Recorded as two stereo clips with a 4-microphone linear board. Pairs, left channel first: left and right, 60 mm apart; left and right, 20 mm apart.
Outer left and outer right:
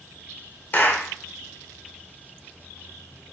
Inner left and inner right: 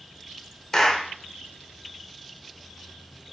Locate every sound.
0.7 s a clap: 30° left (ahead or behind), 0.6 m